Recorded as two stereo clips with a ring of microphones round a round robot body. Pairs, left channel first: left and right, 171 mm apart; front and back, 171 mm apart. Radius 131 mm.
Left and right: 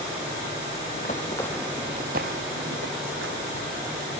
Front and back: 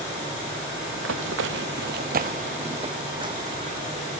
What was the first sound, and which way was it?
Running footsteps, 150° left.